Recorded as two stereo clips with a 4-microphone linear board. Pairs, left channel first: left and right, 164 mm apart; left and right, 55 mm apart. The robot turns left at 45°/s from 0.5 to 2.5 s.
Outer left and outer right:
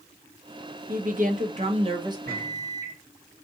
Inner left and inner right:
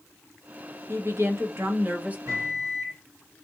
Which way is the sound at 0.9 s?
95° right.